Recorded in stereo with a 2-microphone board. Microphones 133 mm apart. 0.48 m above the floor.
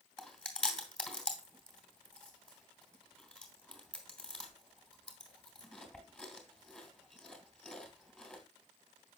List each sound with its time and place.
0.2 s chewing: 10° left (ahead or behind), 3 m